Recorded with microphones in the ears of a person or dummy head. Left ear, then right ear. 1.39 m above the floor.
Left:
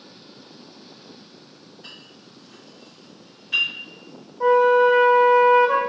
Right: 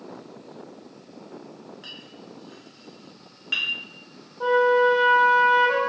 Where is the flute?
10° left (ahead or behind), 1.7 m.